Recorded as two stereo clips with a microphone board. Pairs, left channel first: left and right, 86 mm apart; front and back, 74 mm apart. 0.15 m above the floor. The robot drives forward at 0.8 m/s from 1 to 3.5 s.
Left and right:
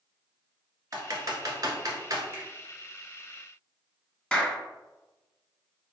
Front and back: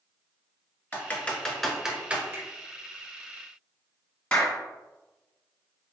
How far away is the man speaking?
I don't hear a man speaking.